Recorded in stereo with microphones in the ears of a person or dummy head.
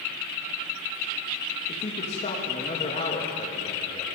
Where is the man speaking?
35° left (ahead or behind), 3 m.